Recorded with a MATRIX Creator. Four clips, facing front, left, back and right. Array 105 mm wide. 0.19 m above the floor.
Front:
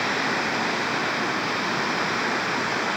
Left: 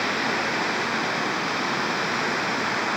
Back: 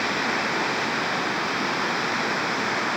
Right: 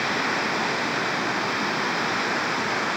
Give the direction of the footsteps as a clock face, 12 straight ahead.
I don't hear footsteps.